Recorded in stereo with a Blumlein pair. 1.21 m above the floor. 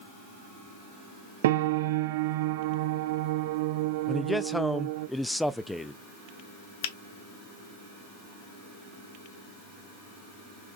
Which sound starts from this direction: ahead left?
A finger snap, at 6.8 s.